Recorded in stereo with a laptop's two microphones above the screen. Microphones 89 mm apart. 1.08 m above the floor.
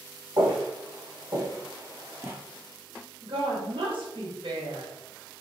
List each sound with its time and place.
0.4 s footsteps: 55° right (ahead or behind), 1.8 m; by 2.3 s 20° right (ahead or behind), 1.1 m
3.2 s a woman speaking: 65° right (ahead or behind), 1.1 m